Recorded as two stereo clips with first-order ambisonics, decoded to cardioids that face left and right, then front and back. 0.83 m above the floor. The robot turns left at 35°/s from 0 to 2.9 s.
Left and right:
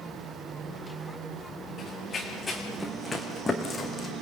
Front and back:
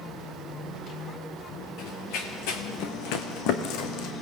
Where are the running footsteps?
35° left, 3 m; by 4.1 s 20° left, 1.6 m.